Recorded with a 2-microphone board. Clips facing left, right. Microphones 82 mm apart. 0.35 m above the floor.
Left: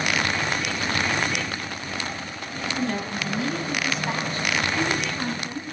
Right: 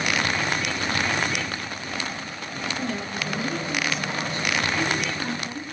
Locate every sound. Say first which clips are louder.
2.8 s a woman speaking: left 4 dB; 55° left (ahead or behind), 2 m; by 5.6 s 25° left (ahead or behind), 3.5 m